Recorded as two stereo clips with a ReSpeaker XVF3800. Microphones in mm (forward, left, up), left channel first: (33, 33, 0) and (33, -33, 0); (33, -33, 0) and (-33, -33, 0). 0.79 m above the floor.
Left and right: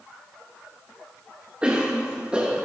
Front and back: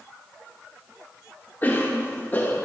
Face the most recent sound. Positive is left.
turn(degrees=-30)